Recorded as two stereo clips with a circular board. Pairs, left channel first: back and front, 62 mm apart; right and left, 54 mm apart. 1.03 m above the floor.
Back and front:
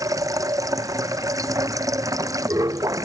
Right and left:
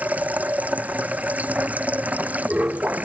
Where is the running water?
30° left.